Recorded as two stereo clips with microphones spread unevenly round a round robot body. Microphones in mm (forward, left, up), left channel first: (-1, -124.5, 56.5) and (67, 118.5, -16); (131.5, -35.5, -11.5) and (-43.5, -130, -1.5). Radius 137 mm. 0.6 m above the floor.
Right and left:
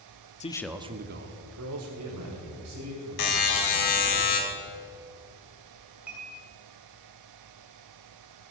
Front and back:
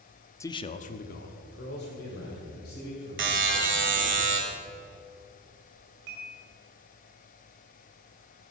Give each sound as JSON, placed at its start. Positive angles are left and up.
{"t": 0.4, "sound": "a man speaking", "azimuth_deg": -35, "distance_m": 0.7}
{"t": 3.2, "sound": "a buzzer", "azimuth_deg": -130, "distance_m": 2.0}
{"t": 6.1, "sound": "dishes clattering", "azimuth_deg": 155, "distance_m": 2.0}